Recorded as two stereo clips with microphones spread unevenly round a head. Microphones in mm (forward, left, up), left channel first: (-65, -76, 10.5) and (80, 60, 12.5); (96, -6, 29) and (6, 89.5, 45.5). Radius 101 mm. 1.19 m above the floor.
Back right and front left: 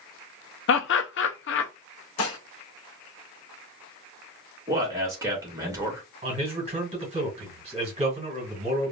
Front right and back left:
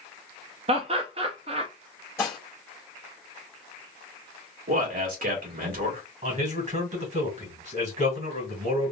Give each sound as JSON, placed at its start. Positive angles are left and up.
{"t": 0.7, "sound": "laughter", "azimuth_deg": -170, "distance_m": 0.5}
{"t": 2.2, "sound": "dishes clattering", "azimuth_deg": -125, "distance_m": 1.0}
{"t": 4.7, "sound": "a man speaking", "azimuth_deg": 120, "distance_m": 1.7}
{"t": 6.2, "sound": "a man speaking", "azimuth_deg": 105, "distance_m": 2.0}